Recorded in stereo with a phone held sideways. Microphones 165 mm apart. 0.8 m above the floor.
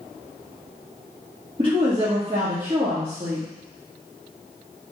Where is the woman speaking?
30° right (ahead or behind), 1.2 m.